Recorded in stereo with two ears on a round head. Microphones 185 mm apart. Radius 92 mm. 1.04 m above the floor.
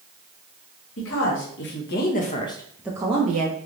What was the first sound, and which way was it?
A woman speaking, 65° left (ahead or behind).